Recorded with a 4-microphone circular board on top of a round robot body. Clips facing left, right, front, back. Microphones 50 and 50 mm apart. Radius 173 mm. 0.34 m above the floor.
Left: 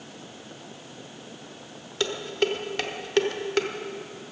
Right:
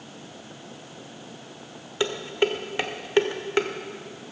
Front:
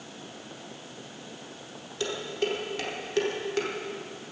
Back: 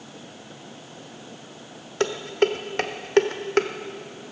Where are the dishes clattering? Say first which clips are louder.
Right 2 dB, back 8 dB; 160° right, 1.1 m.